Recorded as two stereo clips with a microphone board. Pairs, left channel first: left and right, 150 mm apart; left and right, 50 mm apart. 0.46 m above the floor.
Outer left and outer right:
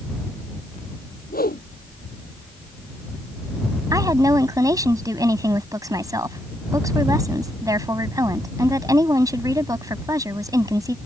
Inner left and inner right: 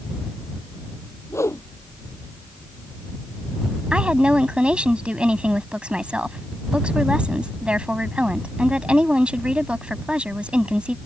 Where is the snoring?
I don't hear snoring.